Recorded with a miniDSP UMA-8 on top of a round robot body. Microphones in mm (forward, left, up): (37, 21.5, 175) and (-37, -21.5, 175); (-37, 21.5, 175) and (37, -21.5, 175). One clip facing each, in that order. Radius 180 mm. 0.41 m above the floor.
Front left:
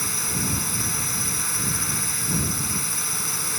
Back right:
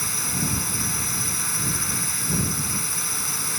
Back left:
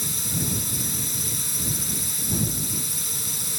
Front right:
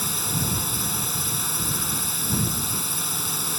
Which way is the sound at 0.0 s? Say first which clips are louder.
Even, front right 2 dB; 60° right.